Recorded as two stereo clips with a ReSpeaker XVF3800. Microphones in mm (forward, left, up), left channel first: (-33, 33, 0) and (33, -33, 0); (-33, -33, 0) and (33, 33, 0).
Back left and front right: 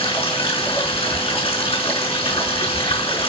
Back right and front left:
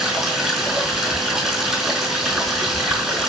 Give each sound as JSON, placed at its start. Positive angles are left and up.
{"t": 0.0, "sound": "running water", "azimuth_deg": 130, "distance_m": 5.0}